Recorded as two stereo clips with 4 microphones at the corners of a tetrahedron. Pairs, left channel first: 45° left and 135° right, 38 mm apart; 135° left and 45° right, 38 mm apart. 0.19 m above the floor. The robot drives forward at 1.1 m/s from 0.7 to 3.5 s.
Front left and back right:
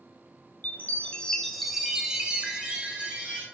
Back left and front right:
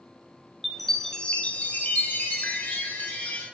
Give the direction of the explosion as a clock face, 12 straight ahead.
No explosion in this recording.